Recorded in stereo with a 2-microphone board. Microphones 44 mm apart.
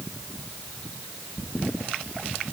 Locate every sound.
Only background noise.